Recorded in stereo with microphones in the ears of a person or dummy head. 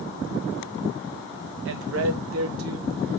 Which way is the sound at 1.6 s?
65° right (ahead or behind).